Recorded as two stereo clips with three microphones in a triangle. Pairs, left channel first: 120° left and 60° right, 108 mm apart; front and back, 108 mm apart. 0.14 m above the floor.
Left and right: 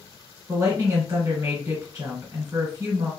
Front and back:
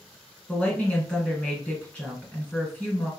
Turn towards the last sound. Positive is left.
turn(degrees=-65)